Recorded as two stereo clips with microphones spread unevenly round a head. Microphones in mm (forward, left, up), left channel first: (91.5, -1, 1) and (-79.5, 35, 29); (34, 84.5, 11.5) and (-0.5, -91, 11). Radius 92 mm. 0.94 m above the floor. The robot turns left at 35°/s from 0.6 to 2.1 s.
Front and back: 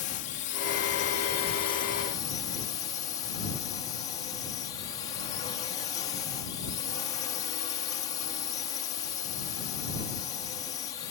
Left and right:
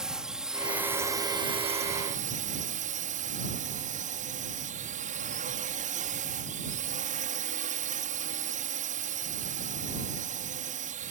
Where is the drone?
15° right; by 11.1 s 70° right.